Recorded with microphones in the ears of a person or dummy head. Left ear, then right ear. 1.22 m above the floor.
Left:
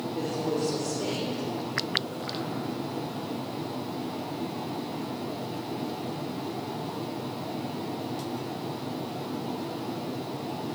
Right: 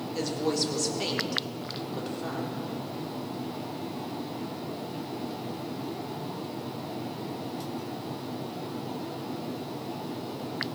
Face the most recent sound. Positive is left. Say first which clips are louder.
# right 2 dB
turn(degrees=-65)  # may be behind; listen again after turning